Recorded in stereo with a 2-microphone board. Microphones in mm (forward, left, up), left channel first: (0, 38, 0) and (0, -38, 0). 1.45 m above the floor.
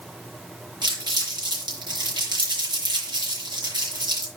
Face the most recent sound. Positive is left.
turn(degrees=-70)  # may be behind; listen again after turning